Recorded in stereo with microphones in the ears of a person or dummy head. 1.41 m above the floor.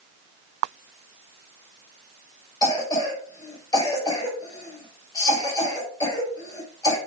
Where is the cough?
20° left (ahead or behind), 5.5 m.